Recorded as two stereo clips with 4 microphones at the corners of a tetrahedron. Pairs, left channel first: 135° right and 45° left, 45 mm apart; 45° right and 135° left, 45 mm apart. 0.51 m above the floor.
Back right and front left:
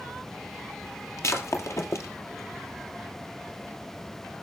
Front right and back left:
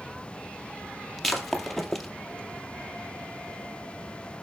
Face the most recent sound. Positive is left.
turn(degrees=-130)